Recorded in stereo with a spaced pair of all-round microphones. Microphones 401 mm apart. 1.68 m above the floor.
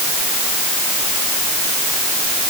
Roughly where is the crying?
No crying in this recording.